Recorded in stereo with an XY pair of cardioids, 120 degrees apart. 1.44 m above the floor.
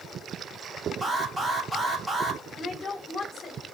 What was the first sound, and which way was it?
An alarm, 10° right.